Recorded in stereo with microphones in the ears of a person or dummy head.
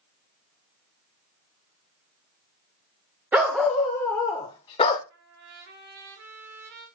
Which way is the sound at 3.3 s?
10° right (ahead or behind).